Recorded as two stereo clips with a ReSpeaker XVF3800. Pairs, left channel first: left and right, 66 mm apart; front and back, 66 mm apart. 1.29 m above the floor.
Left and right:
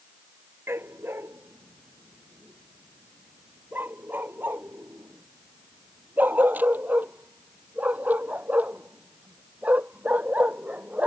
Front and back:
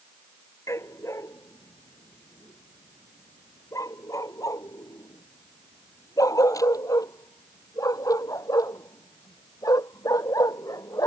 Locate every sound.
0.7 s a dog barking: 40° right; by 11.1 s 25° right